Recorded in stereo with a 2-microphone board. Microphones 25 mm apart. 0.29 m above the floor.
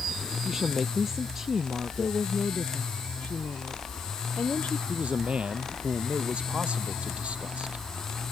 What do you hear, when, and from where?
0.5 s a woman speaking: 20° right (ahead or behind)
2.0 s a woman speaking: 70° left (ahead or behind)
4.9 s a man speaking: 55° right (ahead or behind)